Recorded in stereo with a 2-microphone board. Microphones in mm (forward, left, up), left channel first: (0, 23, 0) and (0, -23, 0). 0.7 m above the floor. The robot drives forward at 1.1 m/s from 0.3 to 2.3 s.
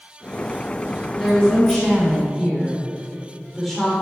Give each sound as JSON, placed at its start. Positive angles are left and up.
{"t": 1.2, "sound": "a woman speaking", "side_deg": 0, "distance_m": 4.0}